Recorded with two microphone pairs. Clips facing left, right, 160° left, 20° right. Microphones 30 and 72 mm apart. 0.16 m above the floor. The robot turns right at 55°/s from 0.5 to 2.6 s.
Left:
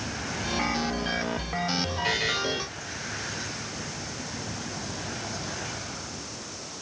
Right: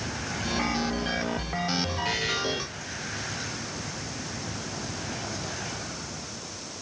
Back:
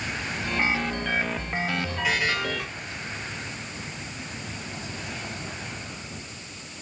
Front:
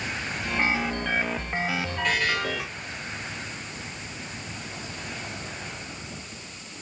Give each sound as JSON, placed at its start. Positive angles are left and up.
{"t": 2.0, "sound": "a buzzer", "azimuth_deg": 70, "distance_m": 4.5}